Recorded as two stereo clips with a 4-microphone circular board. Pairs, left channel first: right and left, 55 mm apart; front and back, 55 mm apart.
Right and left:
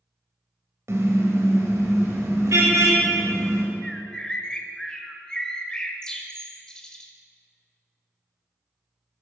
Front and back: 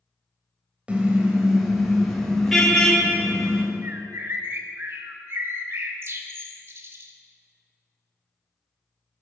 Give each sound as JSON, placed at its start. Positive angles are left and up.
{"t": 0.9, "sound": "a car horn", "azimuth_deg": 115, "distance_m": 2.5}
{"t": 3.8, "sound": "a bird", "azimuth_deg": -160, "distance_m": 1.3}